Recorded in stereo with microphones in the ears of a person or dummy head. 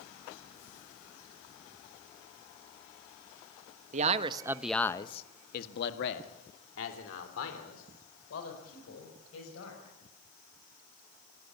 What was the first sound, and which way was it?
A man speaking, 45° right (ahead or behind).